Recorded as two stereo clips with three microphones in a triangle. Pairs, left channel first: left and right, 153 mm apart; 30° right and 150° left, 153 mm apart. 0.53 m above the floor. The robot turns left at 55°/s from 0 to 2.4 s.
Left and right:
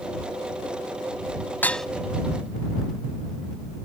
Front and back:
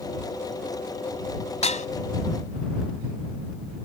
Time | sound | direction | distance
1.6 | dishes clattering | 15° left | ?